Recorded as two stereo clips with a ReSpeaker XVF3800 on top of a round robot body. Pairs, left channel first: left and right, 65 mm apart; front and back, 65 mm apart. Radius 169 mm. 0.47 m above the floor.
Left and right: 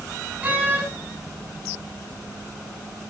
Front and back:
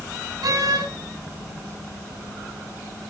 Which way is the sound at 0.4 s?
155° right.